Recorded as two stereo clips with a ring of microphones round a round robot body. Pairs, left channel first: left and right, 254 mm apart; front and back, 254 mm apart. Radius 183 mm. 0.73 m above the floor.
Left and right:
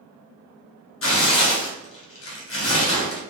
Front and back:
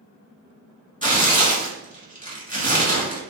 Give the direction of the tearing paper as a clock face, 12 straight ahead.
10 o'clock.